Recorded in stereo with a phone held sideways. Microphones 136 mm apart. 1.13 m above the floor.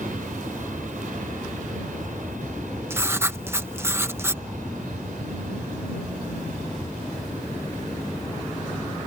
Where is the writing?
20° right (ahead or behind).